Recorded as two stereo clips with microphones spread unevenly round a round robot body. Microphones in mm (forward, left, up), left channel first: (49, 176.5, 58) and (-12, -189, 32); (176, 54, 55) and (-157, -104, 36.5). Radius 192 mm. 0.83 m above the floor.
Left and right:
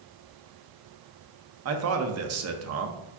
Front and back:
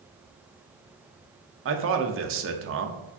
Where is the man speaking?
120° right, 0.5 m.